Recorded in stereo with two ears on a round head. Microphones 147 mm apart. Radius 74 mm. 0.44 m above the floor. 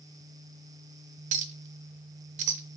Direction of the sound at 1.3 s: 45° right (ahead or behind).